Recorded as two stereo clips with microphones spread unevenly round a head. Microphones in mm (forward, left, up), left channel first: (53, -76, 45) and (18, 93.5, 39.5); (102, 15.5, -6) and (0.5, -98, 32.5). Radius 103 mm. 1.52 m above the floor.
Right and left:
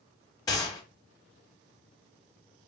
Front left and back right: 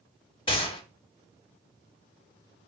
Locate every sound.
0.5 s a gunshot: 15° right, 1.4 m